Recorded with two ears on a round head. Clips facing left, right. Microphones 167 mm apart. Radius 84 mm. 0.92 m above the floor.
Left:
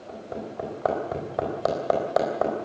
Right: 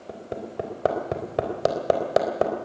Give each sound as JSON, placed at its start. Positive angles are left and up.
{"t": 0.1, "sound": "hammering", "side_deg": -30, "distance_m": 3.5}